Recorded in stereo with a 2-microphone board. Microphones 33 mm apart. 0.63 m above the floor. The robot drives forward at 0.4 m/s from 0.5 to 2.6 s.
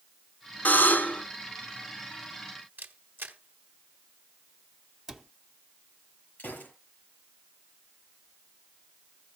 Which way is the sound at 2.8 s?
70° right (ahead or behind).